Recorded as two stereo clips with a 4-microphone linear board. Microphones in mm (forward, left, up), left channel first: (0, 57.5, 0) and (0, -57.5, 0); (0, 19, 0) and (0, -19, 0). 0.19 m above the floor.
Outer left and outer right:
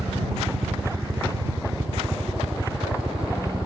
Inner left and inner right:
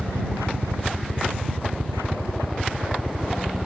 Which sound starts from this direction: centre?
A helicopter, at 0.0 s.